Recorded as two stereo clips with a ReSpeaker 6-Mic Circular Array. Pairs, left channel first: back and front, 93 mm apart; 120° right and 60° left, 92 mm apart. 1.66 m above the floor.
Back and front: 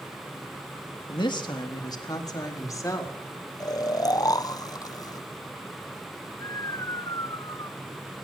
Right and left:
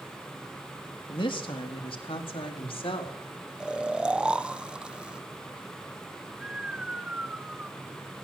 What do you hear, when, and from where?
1.1 s a woman speaking: 150° right, 3.5 m; by 3.2 s 125° right, 5 m
3.6 s snoring: 135° left, 0.8 m